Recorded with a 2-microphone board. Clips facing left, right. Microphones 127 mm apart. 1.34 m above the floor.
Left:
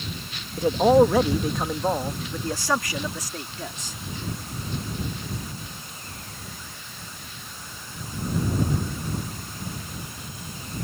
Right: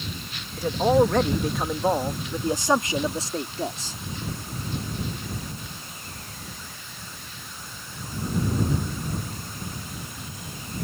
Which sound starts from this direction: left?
A man speaking, at 0.6 s.